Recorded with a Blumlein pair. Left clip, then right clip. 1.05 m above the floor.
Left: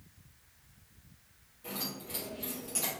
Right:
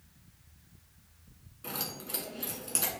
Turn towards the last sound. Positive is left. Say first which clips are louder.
# right 1 dB
turn(degrees=-65)